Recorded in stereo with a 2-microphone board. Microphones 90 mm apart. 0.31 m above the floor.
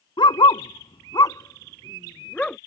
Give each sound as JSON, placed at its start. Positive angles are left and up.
{"t": 0.2, "sound": "a dog barking", "side_deg": 65}